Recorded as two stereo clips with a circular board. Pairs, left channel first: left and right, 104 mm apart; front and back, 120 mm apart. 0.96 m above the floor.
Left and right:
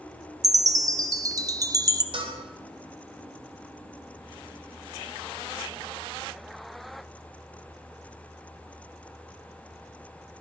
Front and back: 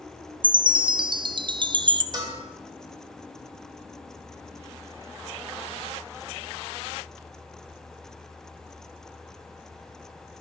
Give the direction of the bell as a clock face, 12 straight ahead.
4 o'clock.